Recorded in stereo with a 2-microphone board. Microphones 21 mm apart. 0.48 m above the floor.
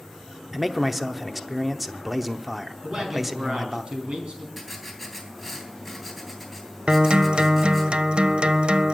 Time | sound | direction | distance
0.5 | a man speaking | 15° right (ahead or behind) | 0.7 m
2.8 | a man speaking | 50° right (ahead or behind) | 4.5 m
4.6 | writing | 5° right (ahead or behind) | 3 m
6.9 | a guitar | 55° right (ahead or behind) | 0.6 m